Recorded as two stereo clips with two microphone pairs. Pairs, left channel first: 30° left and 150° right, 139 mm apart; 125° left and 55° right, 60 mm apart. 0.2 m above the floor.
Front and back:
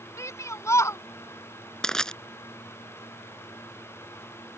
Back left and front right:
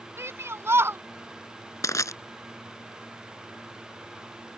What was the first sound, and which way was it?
A shout, 35° right.